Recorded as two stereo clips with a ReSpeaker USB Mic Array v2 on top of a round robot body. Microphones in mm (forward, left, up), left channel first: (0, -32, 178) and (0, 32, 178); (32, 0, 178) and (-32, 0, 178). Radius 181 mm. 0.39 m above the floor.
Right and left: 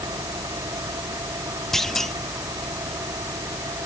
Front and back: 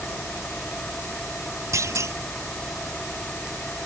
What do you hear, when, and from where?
0.0 s an engine running: 75° left
1.7 s a clunk: 170° right